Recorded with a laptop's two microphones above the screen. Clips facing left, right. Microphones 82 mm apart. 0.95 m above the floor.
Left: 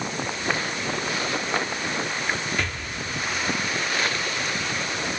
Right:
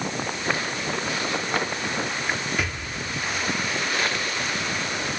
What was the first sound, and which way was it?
An explosion, 10° right (ahead or behind).